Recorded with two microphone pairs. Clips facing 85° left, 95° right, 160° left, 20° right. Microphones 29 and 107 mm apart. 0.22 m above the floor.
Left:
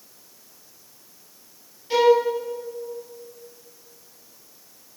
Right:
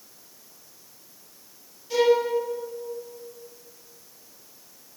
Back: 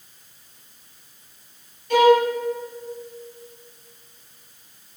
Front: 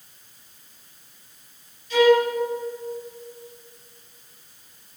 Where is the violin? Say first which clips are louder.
Left 3 dB, back 2 dB; 135° left, 3.5 m.